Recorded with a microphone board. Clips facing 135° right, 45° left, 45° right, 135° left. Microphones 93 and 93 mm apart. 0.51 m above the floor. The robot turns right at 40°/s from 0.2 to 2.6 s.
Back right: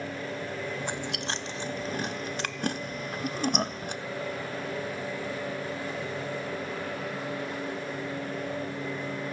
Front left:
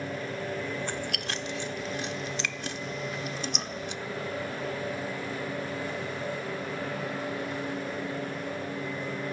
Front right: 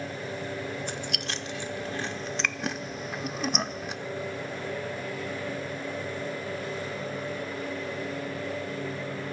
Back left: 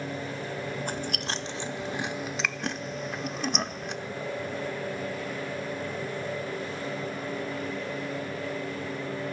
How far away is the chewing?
About 0.8 m.